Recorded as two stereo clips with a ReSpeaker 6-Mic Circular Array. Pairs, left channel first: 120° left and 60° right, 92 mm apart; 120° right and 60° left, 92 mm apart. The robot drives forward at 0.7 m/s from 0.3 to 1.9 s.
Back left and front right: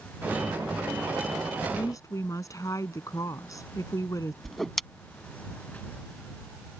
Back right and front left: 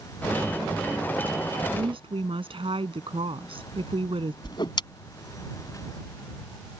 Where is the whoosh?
150° right.